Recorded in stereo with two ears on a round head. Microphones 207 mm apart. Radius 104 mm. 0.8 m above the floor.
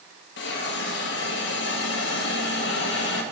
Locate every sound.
0.4 s a hiss: 50° left (ahead or behind), 1.5 m